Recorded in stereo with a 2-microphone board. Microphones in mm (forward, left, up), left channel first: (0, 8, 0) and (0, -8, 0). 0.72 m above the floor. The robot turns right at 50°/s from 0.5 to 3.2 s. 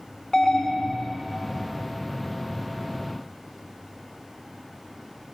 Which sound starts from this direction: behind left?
An alarm, at 0.3 s.